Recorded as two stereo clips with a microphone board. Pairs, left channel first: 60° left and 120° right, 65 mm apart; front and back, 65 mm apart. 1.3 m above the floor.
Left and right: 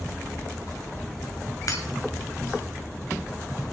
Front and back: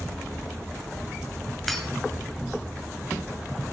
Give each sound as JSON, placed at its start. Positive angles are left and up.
{"t": 1.7, "sound": "breaking glass", "azimuth_deg": 90, "distance_m": 2.0}